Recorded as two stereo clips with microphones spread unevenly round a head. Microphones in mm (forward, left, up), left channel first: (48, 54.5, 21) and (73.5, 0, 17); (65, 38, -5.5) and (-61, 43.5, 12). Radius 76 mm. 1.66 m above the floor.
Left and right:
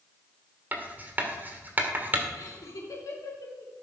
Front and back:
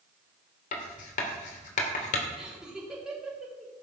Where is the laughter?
95° left, 4.5 m.